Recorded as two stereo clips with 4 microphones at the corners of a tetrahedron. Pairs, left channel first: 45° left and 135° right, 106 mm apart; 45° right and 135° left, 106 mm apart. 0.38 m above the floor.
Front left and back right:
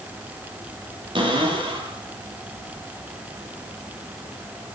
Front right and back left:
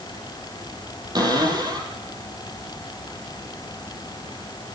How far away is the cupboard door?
About 6 m.